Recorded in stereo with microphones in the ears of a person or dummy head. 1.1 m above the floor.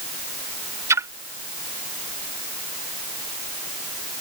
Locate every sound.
0.9 s a splash: 15° right (ahead or behind)